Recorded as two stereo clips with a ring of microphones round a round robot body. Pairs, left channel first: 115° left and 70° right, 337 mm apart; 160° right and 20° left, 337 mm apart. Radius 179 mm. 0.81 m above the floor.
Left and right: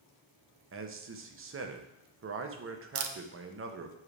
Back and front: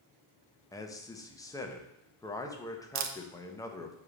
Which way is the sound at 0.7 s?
85° right.